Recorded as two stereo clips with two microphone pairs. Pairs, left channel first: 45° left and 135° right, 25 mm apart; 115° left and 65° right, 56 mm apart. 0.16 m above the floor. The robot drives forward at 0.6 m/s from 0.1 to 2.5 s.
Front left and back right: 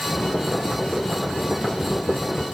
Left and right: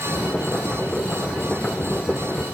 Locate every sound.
Only background noise.